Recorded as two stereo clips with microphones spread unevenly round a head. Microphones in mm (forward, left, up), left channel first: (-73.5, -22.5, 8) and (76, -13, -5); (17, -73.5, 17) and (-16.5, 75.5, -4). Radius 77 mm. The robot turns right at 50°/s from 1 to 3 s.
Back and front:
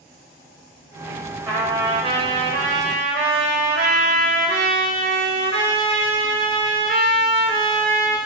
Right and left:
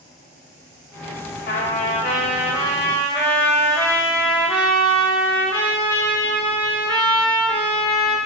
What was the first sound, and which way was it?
A trumpet, 80° right.